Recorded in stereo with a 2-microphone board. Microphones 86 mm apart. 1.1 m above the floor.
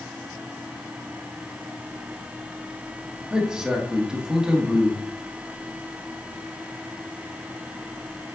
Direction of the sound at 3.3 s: 5° right (ahead or behind).